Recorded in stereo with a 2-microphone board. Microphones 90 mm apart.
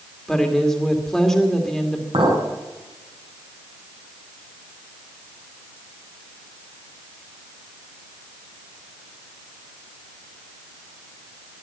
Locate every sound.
0.3 s a woman speaking: 5° left (ahead or behind), 2.5 m
2.1 s a clink: 85° right, 4.5 m